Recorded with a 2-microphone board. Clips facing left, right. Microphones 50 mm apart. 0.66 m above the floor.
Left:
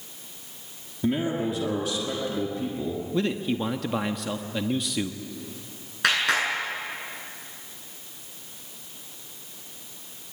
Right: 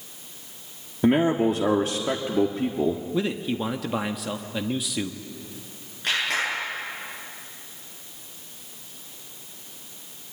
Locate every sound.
1.0 s a man speaking: 45° right (ahead or behind), 1.6 m
3.1 s a man speaking: centre (ahead or behind), 0.8 m
6.0 s a clap: 80° left, 8.5 m